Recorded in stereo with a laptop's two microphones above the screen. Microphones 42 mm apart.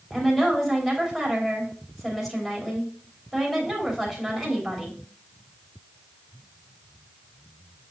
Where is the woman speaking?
10° left (ahead or behind), 3 m.